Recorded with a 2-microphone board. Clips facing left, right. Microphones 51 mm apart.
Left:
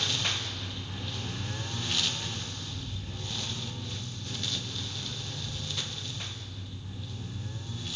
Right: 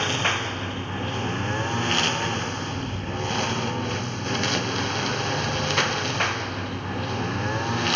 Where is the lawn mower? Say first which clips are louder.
Right 9 dB; 45° right (ahead or behind); by 8.0 s 75° right (ahead or behind).